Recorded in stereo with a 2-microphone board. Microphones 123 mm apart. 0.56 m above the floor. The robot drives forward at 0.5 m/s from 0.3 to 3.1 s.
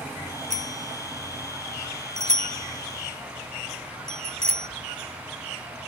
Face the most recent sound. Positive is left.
turn(degrees=-65)  # may be behind; listen again after turning